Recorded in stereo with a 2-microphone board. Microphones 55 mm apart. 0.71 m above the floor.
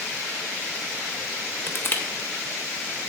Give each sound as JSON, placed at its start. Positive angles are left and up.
{"t": 1.7, "sound": "crushing", "side_deg": 40, "distance_m": 0.8}